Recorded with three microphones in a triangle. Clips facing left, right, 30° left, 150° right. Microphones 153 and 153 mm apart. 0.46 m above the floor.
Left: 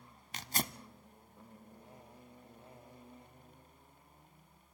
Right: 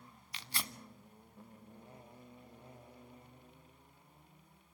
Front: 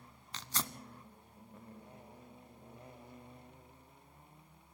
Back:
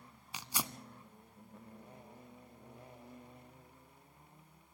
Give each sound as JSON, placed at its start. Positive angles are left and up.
{"t": 0.3, "sound": "tearing paper", "azimuth_deg": 135, "distance_m": 0.5}